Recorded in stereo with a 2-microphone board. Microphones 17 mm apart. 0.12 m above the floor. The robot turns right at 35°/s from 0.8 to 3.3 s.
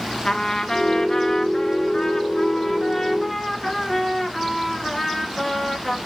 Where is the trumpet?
70° left, 0.7 m; by 6.0 s 155° left, 0.7 m.